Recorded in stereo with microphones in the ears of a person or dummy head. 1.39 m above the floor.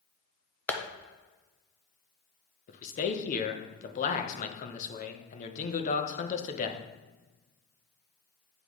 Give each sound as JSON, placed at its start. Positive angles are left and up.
{"t": 0.7, "sound": "tapping", "side_deg": 5, "distance_m": 1.1}
{"t": 2.7, "sound": "a man speaking", "side_deg": 40, "distance_m": 1.0}